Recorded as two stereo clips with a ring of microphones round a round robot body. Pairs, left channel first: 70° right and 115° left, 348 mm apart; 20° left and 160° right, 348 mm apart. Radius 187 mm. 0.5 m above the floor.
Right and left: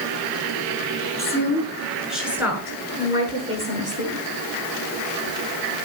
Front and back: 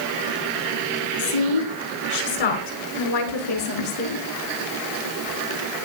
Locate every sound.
1.2 s a woman speaking: 15° left, 7 m; by 4.2 s 45° left, 7.5 m